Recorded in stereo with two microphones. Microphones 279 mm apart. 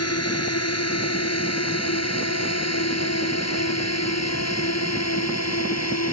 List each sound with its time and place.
0.0 s a drone: 60° left (ahead or behind); by 6.2 s 65° left (ahead or behind)